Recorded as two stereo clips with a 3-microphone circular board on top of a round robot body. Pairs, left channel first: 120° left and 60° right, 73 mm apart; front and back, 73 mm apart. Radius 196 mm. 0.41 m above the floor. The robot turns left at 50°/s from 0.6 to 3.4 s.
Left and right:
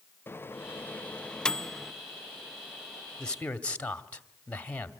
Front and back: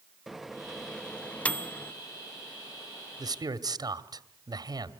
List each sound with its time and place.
0.3 s a microwave: 95° left, 0.8 m; by 1.9 s 25° left, 0.8 m
3.2 s a man speaking: 160° right, 1.8 m; by 4.9 s 170° right, 1.8 m